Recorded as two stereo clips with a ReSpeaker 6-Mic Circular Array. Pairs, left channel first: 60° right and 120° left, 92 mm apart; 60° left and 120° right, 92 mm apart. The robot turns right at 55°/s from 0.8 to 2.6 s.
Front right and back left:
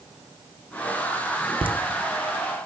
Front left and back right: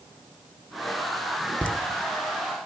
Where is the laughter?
135° left, 0.7 m; by 1.7 s 140° left, 0.7 m.